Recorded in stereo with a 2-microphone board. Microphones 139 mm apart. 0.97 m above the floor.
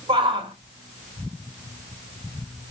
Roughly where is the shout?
Right.